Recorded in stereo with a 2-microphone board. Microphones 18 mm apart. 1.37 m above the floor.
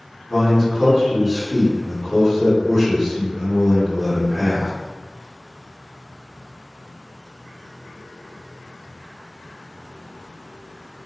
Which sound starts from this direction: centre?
A man speaking, at 0.3 s.